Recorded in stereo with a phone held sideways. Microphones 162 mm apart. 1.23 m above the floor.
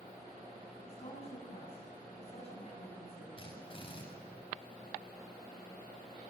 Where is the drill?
35° left (ahead or behind), 7 m.